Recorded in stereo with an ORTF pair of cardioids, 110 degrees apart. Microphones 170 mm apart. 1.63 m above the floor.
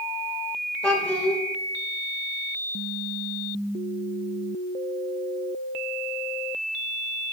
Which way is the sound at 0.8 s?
5° left.